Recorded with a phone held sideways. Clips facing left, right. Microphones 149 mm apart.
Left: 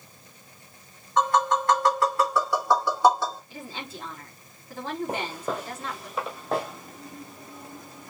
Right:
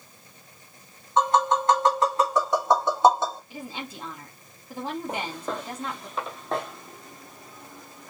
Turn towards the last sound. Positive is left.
turn(degrees=0)  # may be behind; listen again after turning